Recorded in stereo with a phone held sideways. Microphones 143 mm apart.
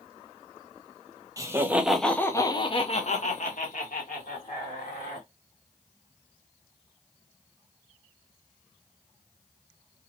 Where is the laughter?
25° right (ahead or behind), 0.9 m; by 5.3 s 85° left, 1.9 m.